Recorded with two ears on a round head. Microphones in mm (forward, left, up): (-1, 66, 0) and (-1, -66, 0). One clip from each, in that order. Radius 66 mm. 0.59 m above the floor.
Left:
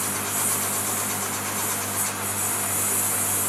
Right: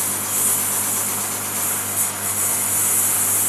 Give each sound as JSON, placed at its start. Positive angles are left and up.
{"t": 0.0, "sound": "a lawn mower", "side_deg": -25}